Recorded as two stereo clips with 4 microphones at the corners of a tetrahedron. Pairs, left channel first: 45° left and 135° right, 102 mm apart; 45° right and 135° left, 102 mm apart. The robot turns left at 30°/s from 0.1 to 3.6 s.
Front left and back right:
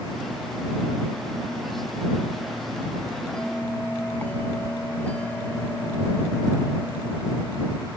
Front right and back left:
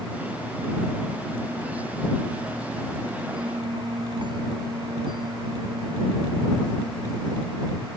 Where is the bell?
130° left; by 7.9 s 120° left.